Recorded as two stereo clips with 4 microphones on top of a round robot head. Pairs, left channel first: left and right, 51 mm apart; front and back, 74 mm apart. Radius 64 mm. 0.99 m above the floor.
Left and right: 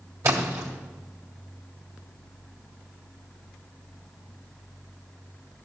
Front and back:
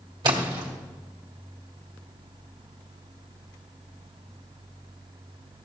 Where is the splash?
140° right, 1.7 m.